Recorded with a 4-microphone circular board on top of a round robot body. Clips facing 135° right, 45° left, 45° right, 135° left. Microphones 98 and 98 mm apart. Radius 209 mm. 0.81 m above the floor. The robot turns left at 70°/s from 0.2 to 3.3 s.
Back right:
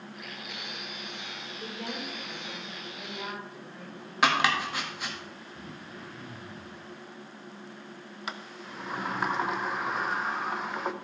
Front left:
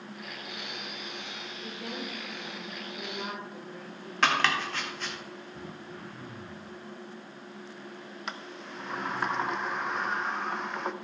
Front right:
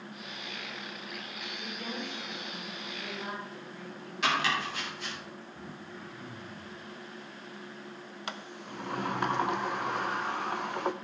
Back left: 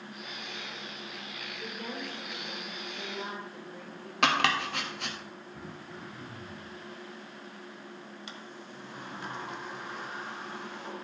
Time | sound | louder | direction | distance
1.6 | a woman speaking | back right 1 dB, even | 155° right | 4.5 m
4.2 | chopping | back right 1 dB, back left 3 dB | 145° left | 1.9 m
5.5 | throat clearing | front left 1 dB, back left 1 dB | 85° left | 0.8 m
8.3 | a sliding door | back right 1 dB, front right 4 dB | 50° right | 0.7 m